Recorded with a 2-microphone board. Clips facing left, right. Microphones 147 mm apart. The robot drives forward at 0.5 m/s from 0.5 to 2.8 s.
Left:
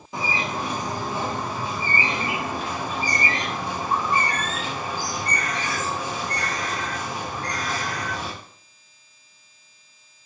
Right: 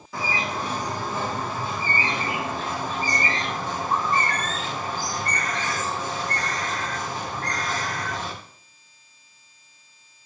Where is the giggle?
No giggle in this recording.